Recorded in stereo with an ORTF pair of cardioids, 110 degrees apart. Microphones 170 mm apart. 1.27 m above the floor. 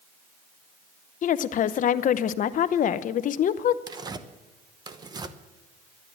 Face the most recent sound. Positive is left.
turn(degrees=-25)